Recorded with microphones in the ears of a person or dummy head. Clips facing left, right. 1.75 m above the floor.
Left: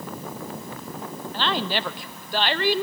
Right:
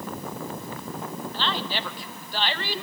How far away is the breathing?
I don't hear breathing.